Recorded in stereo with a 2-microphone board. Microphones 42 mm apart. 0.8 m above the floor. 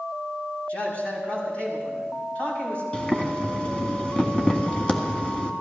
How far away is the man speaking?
About 6.5 m.